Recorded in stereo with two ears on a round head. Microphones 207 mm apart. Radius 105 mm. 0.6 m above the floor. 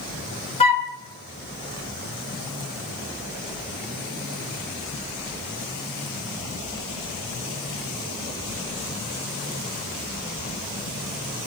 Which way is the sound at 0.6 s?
25° left (ahead or behind).